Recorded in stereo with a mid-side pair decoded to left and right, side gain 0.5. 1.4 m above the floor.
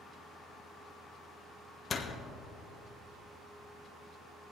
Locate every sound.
1.9 s a door slam: 40° left, 1.3 m